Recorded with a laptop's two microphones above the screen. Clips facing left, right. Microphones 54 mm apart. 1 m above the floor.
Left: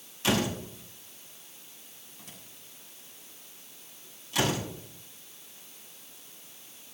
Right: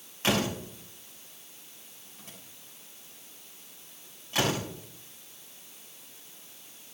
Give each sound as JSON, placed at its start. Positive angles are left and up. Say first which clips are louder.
{"t": 0.2, "sound": "a door slam", "louder": "even", "side_deg": -35, "distance_m": 5.0}